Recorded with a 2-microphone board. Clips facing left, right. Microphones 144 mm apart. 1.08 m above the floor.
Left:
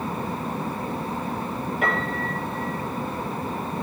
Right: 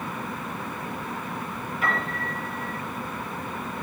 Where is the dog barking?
I don't hear a dog barking.